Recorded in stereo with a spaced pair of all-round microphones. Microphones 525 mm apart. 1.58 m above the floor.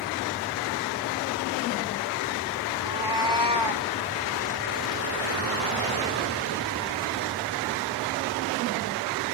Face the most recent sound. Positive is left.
turn(degrees=-55)  # may be behind; listen again after turning